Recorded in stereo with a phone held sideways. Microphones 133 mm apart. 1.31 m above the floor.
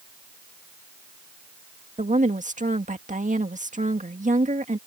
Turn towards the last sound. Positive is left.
turn(degrees=-70)  # may be behind; listen again after turning